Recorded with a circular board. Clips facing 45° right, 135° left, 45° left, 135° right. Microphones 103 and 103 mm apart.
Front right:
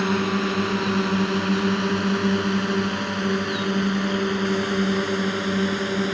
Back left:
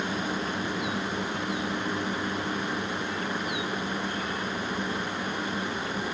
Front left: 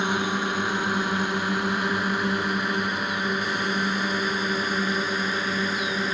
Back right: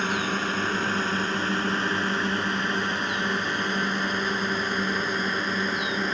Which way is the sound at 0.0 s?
30° right.